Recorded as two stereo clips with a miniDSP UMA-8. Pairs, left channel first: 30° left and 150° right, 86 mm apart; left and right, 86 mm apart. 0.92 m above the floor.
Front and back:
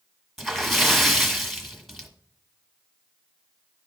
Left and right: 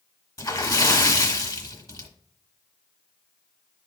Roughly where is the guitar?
No guitar in this recording.